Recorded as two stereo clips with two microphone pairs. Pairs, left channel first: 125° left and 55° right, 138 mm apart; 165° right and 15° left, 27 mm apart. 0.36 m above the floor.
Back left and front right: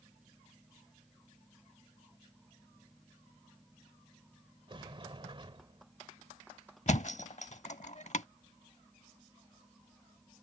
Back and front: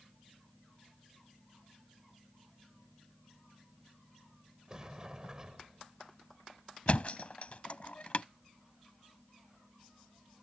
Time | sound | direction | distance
4.7 | a sliding door | 35° right | ?
6.9 | a thud | 160° left | ?